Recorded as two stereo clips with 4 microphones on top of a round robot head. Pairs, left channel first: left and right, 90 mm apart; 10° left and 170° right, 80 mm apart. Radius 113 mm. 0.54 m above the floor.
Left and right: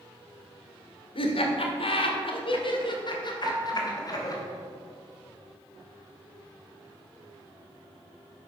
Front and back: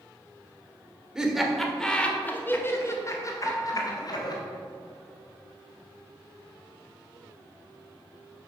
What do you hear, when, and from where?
1.1 s laughter: 105° left, 1.8 m; by 4.4 s 40° left, 2.5 m
3.4 s a piano: 65° right, 2 m